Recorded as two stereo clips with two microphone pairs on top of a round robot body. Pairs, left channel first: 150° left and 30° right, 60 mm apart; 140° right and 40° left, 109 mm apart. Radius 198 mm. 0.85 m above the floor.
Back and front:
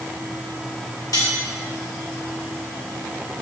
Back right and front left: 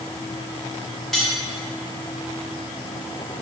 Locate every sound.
1.1 s cutlery clinking: 130° left, 3.5 m